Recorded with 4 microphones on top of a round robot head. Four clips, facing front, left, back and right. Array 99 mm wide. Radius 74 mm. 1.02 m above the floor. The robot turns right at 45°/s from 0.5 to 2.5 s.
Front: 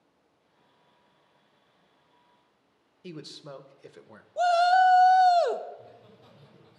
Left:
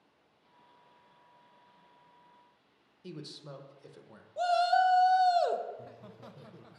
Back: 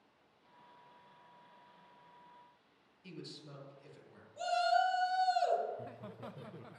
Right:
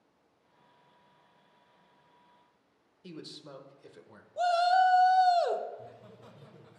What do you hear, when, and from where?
3.0 s a man speaking: 10° left, 0.9 m
4.4 s a shout: 5° left, 0.7 m
5.7 s laughter: 160° left, 0.8 m